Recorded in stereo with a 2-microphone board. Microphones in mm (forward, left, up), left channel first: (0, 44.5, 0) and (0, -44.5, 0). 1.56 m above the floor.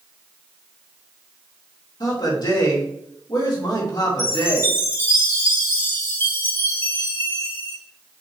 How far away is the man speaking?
About 2.5 m.